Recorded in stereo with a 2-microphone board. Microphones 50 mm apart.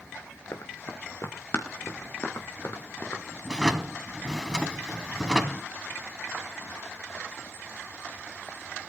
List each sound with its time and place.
0.5 s running footsteps: 55° left (ahead or behind), 2.5 m; by 3.2 s 50° left (ahead or behind), 4 m
3.5 s a drawer: 15° right (ahead or behind), 1.5 m